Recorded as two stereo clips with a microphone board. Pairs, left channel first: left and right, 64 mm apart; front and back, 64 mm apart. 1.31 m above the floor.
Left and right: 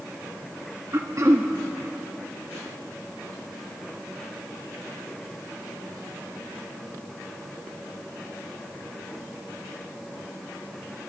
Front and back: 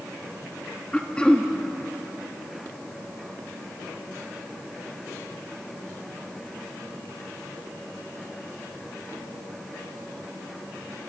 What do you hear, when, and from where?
0.9 s throat clearing: 70° right, 1.0 m